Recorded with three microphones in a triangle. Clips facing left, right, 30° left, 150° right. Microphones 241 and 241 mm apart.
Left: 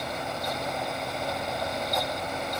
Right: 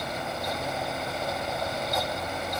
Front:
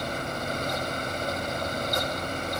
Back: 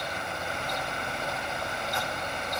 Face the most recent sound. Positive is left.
No sound to turn to.